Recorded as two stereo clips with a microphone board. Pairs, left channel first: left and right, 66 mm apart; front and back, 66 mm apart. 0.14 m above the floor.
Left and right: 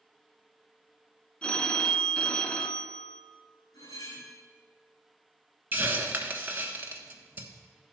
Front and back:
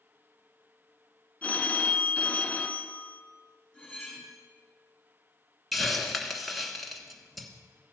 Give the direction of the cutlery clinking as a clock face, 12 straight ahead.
10 o'clock.